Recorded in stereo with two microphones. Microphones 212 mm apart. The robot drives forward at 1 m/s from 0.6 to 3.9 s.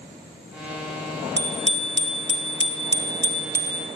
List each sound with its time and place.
1.4 s a bicycle bell: 60° right (ahead or behind), 2.5 m; by 3.9 s 45° right (ahead or behind), 3 m